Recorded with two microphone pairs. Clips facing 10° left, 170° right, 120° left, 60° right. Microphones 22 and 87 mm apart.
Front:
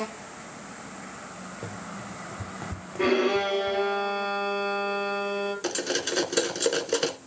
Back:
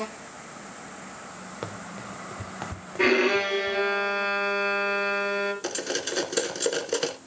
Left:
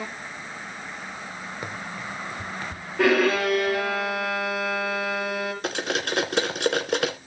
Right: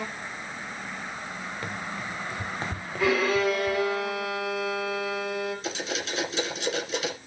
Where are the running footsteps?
165° right, 1.9 m; by 3.8 s 40° right, 1.7 m.